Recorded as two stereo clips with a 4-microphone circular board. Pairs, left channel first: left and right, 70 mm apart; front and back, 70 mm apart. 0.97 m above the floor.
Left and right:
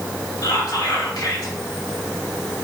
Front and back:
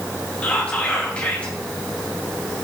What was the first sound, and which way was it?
Whispering, 70° left.